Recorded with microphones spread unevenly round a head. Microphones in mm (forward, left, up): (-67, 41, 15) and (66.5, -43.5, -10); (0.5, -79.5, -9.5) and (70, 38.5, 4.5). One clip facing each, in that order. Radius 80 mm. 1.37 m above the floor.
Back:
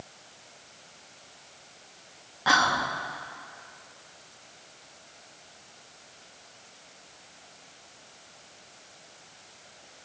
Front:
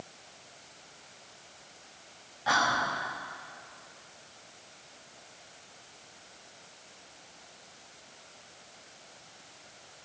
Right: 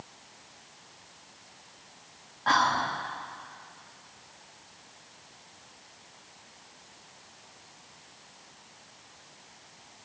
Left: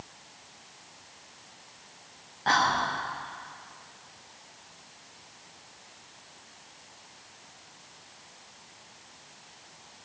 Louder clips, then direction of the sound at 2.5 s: Back 3 dB, even; 130° left.